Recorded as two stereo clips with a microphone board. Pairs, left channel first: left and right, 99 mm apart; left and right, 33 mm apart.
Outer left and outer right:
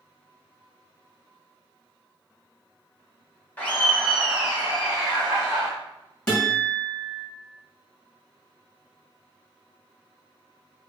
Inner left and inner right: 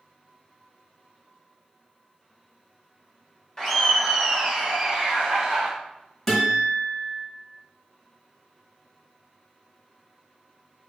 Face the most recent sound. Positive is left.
turn(degrees=10)  # may be behind; listen again after turning